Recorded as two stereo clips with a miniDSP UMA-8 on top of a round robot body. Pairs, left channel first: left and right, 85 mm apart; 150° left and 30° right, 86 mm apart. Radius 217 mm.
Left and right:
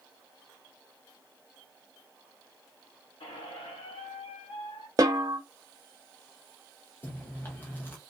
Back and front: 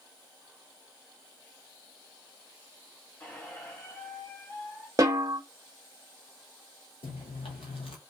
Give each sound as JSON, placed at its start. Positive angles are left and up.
{"t": 3.2, "sound": "a squeak", "azimuth_deg": 85, "distance_m": 0.6}
{"t": 5.0, "sound": "a snare drum", "azimuth_deg": -65, "distance_m": 0.9}
{"t": 7.0, "sound": "chewing", "azimuth_deg": 160, "distance_m": 0.6}